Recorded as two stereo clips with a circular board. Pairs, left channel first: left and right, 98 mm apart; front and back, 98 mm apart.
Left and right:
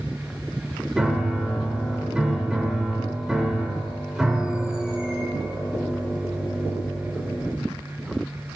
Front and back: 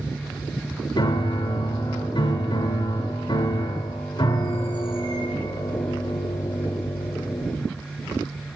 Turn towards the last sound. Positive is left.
turn(degrees=-10)